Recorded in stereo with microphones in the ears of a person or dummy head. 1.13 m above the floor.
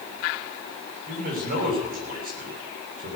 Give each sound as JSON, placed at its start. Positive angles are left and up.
{"t": 1.1, "sound": "a man speaking", "side_deg": -50, "distance_m": 6.0}